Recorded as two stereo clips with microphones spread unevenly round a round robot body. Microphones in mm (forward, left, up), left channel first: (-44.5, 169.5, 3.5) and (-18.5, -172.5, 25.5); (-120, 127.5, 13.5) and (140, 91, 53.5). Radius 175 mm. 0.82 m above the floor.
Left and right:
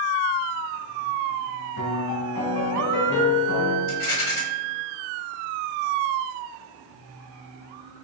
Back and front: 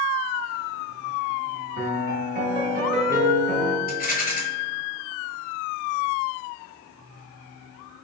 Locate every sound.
1.8 s a piano: 50° left, 1.1 m
3.9 s a rattle: 135° left, 1.3 m